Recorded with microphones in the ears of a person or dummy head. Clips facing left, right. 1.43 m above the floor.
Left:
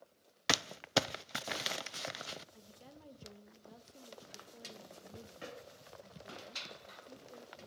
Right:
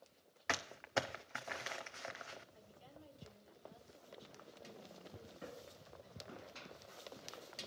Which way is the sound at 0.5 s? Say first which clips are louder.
Left 6 dB; 45° left (ahead or behind).